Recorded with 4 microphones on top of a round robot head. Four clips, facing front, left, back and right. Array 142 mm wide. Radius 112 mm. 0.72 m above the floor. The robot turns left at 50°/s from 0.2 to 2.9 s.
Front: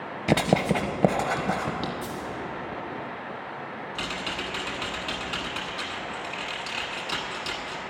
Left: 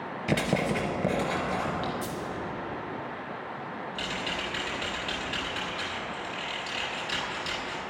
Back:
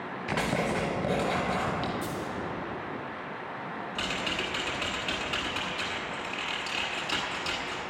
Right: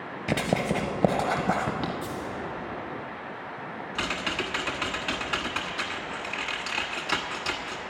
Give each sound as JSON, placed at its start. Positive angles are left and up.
{"t": 0.3, "sound": "writing", "azimuth_deg": 0, "distance_m": 0.9}
{"t": 2.0, "sound": "a dropped coin", "azimuth_deg": 90, "distance_m": 1.7}
{"t": 4.0, "sound": "typing on a keyboard", "azimuth_deg": -85, "distance_m": 1.3}